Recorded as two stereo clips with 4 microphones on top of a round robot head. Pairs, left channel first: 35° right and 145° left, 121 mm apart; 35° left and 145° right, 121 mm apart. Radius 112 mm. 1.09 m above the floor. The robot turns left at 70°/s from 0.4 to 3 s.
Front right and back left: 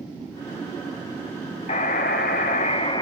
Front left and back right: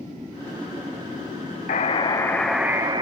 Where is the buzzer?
5° left, 1.6 m; by 3.0 s 90° right, 1.6 m.